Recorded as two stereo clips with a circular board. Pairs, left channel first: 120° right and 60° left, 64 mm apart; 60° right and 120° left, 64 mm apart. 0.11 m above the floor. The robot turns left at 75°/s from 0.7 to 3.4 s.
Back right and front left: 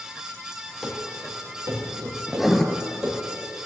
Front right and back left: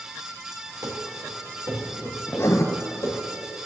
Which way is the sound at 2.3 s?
15° right.